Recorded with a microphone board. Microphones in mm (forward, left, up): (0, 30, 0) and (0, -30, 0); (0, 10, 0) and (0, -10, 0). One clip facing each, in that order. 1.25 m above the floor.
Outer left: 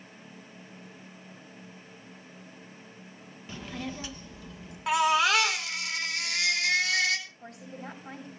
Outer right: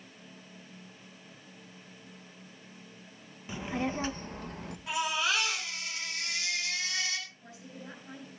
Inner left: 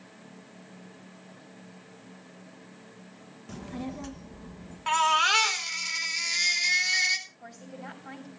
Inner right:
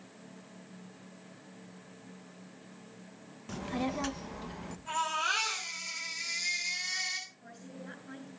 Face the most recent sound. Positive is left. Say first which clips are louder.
# outer left 5 dB, inner left 4 dB
turn(degrees=60)  # may be behind; listen again after turning